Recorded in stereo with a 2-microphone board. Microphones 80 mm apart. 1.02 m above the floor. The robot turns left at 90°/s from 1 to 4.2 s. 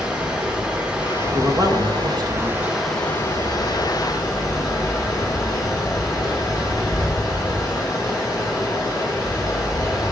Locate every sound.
0.0 s running water: 15° right, 3 m; by 10.1 s 60° left, 3 m
1.3 s a man speaking: 40° right, 1.2 m; by 2.7 s 165° right, 1.2 m